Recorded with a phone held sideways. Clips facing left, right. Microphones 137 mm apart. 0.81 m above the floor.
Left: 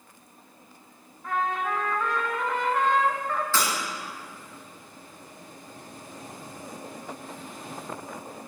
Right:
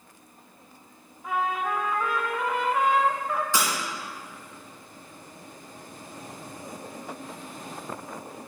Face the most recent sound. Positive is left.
turn(degrees=-20)  # may be behind; listen again after turning